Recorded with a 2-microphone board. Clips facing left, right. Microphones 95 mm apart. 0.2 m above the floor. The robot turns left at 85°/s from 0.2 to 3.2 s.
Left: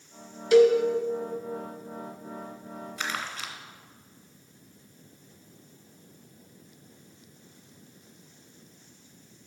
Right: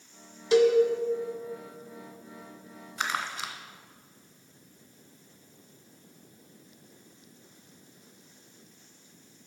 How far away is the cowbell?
About 1.2 m.